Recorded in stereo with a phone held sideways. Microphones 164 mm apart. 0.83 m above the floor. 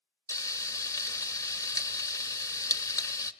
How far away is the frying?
About 0.6 m.